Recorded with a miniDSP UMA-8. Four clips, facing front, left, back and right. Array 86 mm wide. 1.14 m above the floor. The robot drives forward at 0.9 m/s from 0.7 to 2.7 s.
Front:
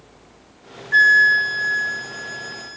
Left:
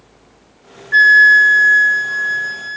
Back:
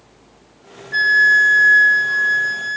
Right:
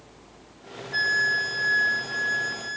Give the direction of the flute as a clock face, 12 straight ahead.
10 o'clock.